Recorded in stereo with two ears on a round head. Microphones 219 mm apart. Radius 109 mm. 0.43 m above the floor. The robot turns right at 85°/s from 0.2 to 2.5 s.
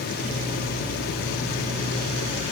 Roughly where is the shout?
I don't hear a shout.